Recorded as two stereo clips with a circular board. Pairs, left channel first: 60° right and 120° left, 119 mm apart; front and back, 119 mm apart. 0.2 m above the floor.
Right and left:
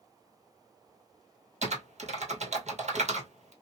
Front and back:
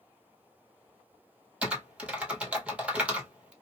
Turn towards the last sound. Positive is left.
turn(degrees=100)